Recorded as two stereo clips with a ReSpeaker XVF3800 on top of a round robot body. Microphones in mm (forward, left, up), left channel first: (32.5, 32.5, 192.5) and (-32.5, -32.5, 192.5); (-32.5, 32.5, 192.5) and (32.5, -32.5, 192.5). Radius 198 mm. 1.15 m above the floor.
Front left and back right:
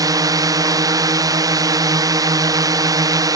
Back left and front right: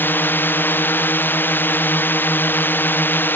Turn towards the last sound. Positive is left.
turn(degrees=-165)